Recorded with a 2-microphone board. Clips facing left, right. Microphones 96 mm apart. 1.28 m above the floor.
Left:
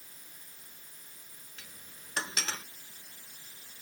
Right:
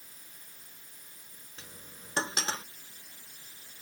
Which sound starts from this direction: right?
Cutlery clinking, at 1.6 s.